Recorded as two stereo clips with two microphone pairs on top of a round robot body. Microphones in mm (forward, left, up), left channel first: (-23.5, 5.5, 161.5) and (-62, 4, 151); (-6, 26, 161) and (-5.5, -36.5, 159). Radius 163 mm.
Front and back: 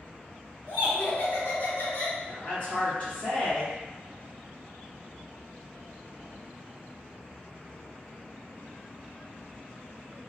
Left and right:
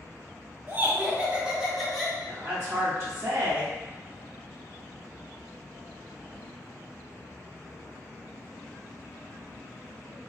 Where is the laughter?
50° right, 1.6 m; by 2.2 s 15° left, 1.3 m.